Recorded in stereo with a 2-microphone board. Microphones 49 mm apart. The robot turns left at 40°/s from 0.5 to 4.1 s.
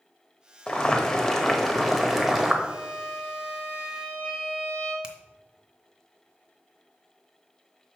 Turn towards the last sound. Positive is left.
turn(degrees=-20)  # may be behind; listen again after turning